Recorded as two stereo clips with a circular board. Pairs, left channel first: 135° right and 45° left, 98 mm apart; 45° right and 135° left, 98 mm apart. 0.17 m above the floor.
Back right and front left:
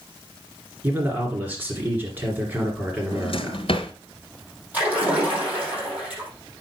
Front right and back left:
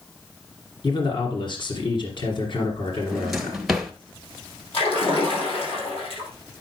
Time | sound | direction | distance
0.8 | a man speaking | 25° right | 2.5 m
3.1 | a drawer | 140° right | 1.1 m
4.7 | a splash | 30° right | 5.5 m